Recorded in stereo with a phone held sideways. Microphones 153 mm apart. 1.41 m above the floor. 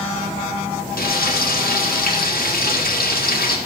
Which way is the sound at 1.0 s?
85° left.